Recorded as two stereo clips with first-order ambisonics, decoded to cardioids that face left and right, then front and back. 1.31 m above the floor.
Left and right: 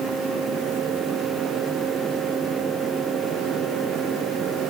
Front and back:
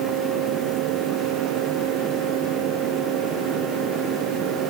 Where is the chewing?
I don't hear chewing.